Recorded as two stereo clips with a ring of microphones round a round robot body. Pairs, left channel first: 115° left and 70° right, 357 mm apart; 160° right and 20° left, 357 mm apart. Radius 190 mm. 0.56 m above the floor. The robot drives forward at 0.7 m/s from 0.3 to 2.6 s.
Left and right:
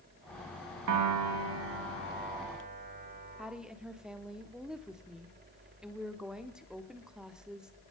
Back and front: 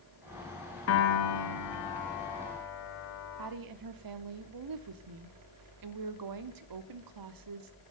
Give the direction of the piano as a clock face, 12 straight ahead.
4 o'clock.